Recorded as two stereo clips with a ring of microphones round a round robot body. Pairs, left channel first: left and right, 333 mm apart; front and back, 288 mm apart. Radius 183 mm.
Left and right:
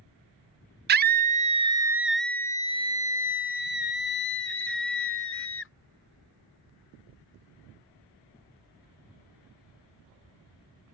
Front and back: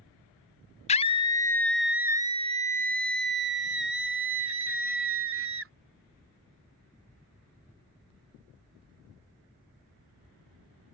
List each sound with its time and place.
0.9 s a scream: 50° right; by 5.7 s 140° left